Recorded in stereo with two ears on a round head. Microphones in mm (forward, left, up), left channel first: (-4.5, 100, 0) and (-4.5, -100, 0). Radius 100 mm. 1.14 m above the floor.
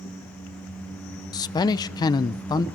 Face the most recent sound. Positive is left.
turn(degrees=20)  # may be behind; listen again after turning